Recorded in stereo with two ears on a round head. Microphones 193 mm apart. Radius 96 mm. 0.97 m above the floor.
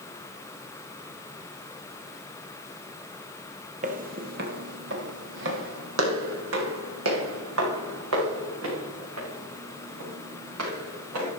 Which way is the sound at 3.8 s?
35° right (ahead or behind).